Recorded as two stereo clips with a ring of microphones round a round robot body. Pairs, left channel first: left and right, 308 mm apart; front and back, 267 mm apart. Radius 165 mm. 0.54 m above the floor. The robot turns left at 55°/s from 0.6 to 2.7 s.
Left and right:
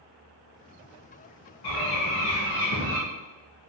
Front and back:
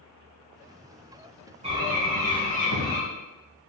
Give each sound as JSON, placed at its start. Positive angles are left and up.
{"t": 1.6, "sound": "a bird", "azimuth_deg": 110, "distance_m": 1.5}